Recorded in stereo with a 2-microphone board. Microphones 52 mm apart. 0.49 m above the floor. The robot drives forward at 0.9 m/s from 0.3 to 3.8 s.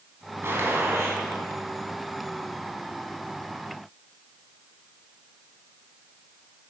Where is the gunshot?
50° right (ahead or behind), 2.5 m; by 1.2 s 65° right (ahead or behind), 2 m.